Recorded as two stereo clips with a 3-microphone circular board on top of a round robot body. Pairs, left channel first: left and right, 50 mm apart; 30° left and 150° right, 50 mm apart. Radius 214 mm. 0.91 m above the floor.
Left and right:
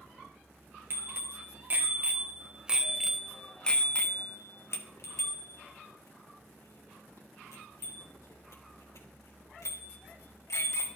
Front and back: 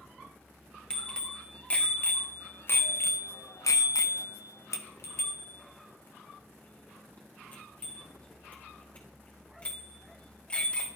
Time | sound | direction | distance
0.9 | a bicycle bell | 45° right | 2 m